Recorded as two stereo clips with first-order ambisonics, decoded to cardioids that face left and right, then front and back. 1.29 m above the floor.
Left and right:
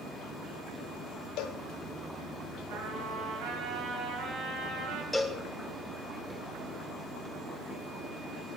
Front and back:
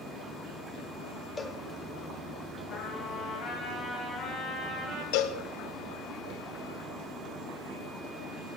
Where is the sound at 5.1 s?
Straight ahead, 0.8 m.